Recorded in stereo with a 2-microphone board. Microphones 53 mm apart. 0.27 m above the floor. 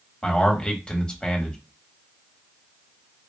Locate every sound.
0.2 s a man speaking: 15° left (ahead or behind), 1.1 m